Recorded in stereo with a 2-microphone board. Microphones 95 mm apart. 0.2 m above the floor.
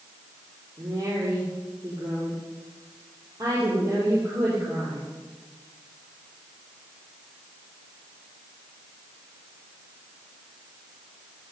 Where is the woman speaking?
40° right (ahead or behind), 5.5 m.